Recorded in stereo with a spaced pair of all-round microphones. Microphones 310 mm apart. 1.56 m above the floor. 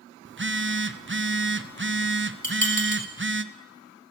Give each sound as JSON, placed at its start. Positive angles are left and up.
{"t": 0.2, "sound": "a phone buzzing", "side_deg": -40, "distance_m": 0.8}
{"t": 2.4, "sound": "dishes clattering", "side_deg": 25, "distance_m": 4.0}